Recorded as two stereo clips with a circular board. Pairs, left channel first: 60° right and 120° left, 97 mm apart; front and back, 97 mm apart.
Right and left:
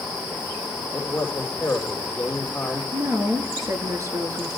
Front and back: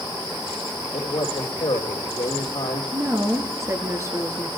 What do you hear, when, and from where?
0.9 s a man speaking: 15° left, 3.5 m
2.9 s a woman speaking: 145° left, 1.7 m